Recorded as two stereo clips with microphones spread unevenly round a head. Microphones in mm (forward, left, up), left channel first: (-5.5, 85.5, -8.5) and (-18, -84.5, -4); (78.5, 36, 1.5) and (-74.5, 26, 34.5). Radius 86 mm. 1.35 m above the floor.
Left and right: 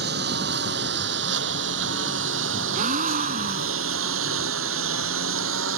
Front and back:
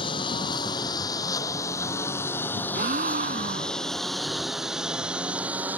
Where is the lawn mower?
60° right; by 5.8 s 95° right.